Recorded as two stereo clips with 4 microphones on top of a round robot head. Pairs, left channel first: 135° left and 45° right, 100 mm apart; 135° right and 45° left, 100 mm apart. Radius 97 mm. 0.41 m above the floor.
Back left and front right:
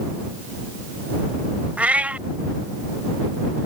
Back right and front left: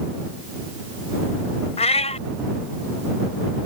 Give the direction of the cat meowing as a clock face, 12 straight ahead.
4 o'clock.